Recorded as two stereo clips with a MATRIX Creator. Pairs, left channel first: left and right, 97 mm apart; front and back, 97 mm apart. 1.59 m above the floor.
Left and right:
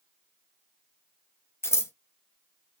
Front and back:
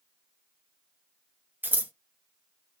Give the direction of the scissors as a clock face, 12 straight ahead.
8 o'clock.